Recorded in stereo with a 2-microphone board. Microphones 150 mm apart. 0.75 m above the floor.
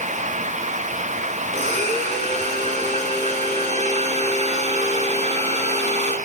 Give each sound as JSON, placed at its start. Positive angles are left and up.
{"t": 1.5, "sound": "a blender", "side_deg": -50, "distance_m": 9.0}